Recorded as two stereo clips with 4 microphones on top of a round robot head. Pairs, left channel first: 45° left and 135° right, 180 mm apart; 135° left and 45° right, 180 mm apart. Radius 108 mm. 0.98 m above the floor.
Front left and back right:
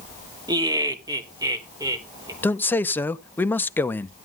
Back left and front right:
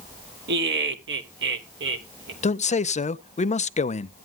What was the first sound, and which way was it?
Laughter, 70° right.